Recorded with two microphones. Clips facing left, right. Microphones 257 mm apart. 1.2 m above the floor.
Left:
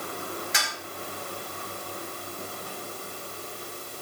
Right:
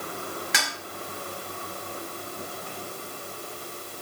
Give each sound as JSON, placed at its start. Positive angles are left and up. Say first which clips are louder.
{"t": 0.5, "sound": "dishes clattering", "louder": "right 2 dB", "side_deg": -80, "distance_m": 4.0}